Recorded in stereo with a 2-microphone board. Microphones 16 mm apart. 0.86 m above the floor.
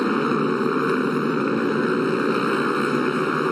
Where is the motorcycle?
10° left (ahead or behind).